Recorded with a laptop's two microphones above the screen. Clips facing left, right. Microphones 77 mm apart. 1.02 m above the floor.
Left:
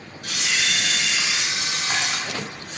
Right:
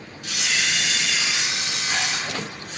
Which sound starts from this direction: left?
A camera shutter, at 0.2 s.